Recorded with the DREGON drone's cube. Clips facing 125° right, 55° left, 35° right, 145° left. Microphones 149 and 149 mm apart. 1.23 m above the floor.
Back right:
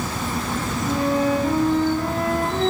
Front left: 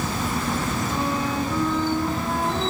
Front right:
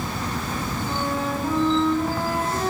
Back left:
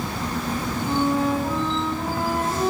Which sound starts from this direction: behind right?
A flute, at 0.8 s.